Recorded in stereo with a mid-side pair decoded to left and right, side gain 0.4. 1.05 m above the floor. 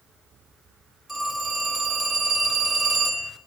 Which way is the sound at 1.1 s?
5° right.